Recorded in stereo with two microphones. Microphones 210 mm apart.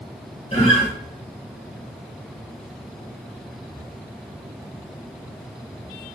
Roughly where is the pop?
I don't hear a pop.